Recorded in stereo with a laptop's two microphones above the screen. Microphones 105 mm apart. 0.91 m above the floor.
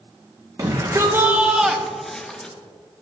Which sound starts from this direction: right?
A shout, at 0.6 s.